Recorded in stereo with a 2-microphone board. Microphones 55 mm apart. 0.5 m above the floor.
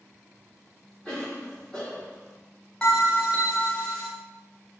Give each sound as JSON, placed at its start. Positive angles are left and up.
{"t": 1.1, "sound": "a cough", "side_deg": 15, "distance_m": 1.2}
{"t": 2.8, "sound": "a bell", "side_deg": 20, "distance_m": 0.7}